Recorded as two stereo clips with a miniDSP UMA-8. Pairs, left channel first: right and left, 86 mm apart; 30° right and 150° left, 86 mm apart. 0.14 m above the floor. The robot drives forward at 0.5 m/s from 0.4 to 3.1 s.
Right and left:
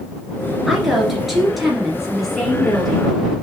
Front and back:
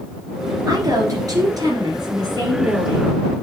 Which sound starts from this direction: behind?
A woman speaking, at 0.7 s.